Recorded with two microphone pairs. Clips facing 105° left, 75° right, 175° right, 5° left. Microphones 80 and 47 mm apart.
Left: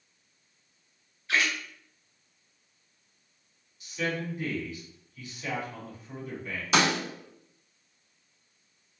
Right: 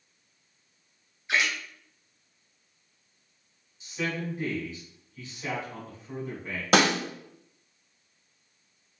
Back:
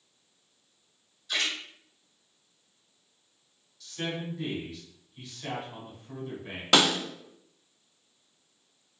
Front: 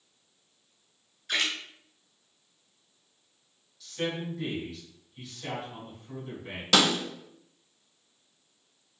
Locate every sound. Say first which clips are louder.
1.3 s a splash: even, front 1 dB; 5° right, 1.0 m
3.8 s a man speaking: even, front 2 dB; 80° right, 1.3 m
6.7 s a snare drum: right 3 dB, back 1 dB; 105° right, 0.8 m